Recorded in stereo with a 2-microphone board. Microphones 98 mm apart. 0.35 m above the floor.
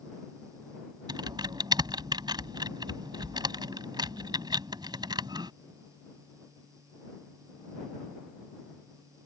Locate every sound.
1.1 s typing on a keyboard: 50° right (ahead or behind)